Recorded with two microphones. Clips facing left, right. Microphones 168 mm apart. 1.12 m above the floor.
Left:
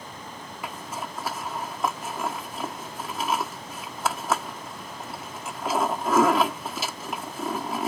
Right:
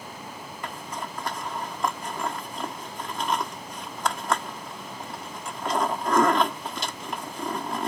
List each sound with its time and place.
0.6 s a zipper: 5° left (ahead or behind)